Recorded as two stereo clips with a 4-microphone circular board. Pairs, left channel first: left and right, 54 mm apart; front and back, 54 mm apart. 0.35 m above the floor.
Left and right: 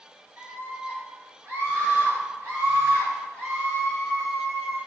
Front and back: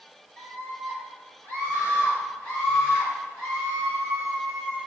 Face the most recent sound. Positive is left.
turn(degrees=-40)